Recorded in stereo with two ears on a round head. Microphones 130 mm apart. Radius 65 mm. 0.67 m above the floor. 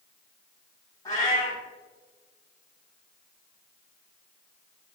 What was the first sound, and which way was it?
A cat meowing, 25° left (ahead or behind).